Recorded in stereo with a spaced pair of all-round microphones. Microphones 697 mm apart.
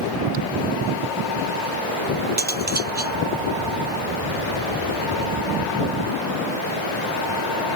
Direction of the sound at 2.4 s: 15° right (ahead or behind).